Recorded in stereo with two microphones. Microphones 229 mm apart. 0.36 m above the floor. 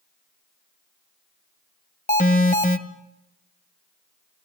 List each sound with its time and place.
2.1 s an alarm: 35° left (ahead or behind), 2 m